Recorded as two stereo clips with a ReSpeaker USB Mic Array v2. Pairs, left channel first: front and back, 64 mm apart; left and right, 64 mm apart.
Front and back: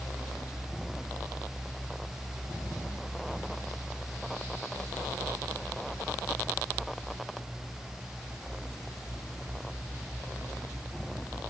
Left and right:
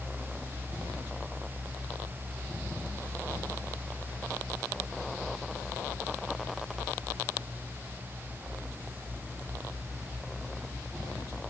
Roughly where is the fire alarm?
No fire alarm in this recording.